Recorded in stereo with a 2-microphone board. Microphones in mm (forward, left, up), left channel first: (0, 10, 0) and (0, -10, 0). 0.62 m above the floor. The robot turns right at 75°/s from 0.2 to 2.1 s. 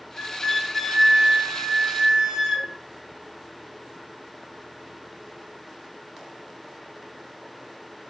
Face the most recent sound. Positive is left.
turn(degrees=-90)